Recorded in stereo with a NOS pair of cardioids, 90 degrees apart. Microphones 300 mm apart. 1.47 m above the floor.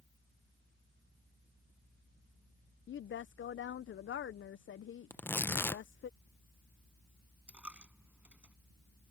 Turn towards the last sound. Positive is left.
turn(degrees=-5)